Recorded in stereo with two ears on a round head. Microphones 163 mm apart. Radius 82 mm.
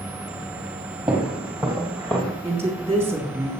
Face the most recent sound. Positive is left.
turn(degrees=-15)  # may be behind; listen again after turning